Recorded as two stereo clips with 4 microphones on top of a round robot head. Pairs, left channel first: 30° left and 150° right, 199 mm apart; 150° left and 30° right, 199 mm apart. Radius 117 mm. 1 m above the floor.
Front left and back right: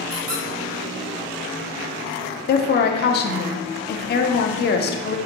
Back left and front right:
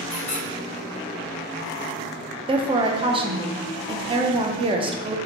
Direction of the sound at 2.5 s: 25° left.